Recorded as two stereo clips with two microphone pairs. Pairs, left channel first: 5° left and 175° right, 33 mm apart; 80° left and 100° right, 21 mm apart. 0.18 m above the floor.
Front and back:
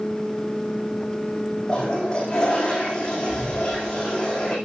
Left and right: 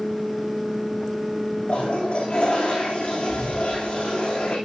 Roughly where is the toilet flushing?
Left.